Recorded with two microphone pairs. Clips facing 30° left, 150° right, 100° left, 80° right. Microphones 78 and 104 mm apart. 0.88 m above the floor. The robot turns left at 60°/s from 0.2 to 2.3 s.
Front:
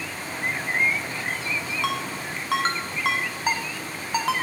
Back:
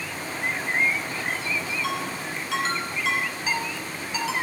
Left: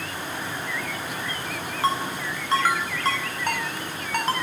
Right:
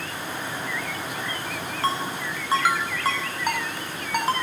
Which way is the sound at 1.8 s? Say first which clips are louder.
Front 1 dB, left 2 dB; 25° left.